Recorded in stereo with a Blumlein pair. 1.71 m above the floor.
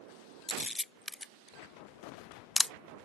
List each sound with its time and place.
0.5 s a camera shutter: 5° left